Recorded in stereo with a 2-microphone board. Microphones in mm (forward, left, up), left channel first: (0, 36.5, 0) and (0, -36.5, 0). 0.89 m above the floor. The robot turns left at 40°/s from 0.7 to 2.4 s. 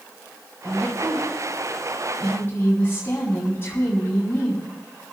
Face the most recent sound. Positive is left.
turn(degrees=150)